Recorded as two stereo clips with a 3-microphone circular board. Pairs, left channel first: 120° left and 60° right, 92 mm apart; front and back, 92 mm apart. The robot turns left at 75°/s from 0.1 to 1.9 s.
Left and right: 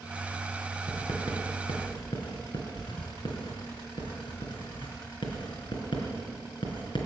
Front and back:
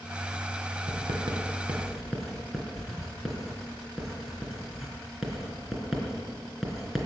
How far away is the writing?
About 3.5 m.